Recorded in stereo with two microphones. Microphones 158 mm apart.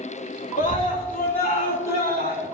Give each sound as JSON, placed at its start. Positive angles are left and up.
{"t": 0.6, "sound": "a scream", "side_deg": 50, "distance_m": 2.0}